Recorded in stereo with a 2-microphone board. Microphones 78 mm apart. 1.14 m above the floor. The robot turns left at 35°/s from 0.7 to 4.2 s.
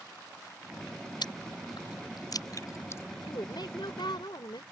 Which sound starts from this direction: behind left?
A woman speaking, at 3.2 s.